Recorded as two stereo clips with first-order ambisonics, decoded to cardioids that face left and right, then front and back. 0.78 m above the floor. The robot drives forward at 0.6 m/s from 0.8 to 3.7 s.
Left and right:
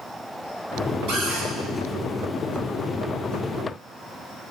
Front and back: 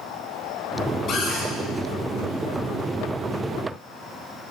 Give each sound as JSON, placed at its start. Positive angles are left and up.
{"t": 1.1, "sound": "a cupboard door", "azimuth_deg": -65, "distance_m": 3.0}